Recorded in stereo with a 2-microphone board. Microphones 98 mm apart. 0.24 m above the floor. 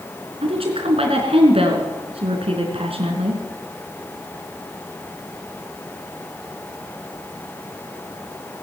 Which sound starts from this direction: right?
A woman speaking, at 0.4 s.